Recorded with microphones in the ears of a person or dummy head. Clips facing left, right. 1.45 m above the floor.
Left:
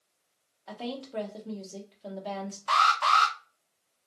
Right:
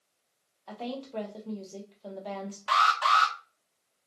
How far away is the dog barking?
No dog barking in this recording.